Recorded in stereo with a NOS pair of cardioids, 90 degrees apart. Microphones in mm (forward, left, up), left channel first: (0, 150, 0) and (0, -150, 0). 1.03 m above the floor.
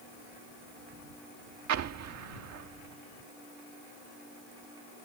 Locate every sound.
1.7 s an explosion: 60° right